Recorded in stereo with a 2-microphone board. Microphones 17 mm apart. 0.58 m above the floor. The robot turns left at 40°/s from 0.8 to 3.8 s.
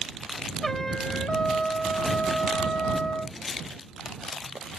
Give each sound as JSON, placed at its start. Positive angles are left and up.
{"t": 0.6, "sound": "a trumpet", "azimuth_deg": 160}